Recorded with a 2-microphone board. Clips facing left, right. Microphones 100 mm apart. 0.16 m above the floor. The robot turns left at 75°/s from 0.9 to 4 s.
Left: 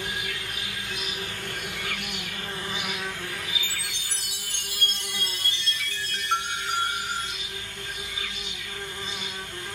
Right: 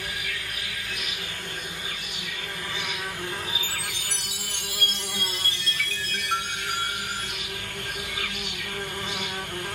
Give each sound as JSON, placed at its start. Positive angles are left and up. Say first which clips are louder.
{"t": 0.0, "sound": "an insect", "louder": "left 1 dB", "azimuth_deg": 160, "distance_m": 0.8}
{"t": 3.5, "sound": "a chime", "louder": "right 2 dB", "azimuth_deg": 85, "distance_m": 1.9}